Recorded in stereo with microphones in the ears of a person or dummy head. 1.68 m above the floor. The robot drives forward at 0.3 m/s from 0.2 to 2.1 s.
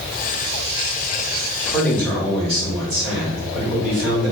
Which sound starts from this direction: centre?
A man speaking, at 1.6 s.